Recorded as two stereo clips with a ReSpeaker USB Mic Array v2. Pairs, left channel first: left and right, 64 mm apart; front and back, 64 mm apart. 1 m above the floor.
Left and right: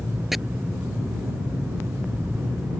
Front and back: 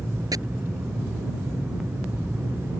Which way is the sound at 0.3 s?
175° right.